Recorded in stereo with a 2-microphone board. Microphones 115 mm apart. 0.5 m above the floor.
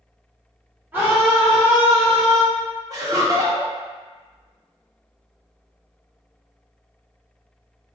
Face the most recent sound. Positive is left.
turn(degrees=-30)  # may be behind; listen again after turning